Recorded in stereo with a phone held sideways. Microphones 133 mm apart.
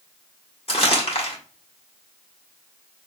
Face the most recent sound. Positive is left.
turn(degrees=50)  # may be behind; listen again after turning